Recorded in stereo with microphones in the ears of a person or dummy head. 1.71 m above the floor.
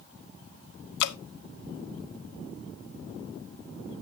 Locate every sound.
1.0 s dripping: 60° left (ahead or behind), 0.6 m